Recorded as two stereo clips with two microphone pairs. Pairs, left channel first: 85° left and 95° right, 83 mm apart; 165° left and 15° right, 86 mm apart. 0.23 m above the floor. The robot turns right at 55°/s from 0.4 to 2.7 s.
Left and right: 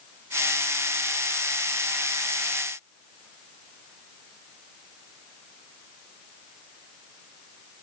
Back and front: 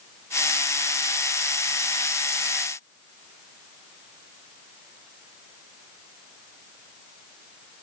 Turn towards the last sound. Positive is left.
No sound to turn to.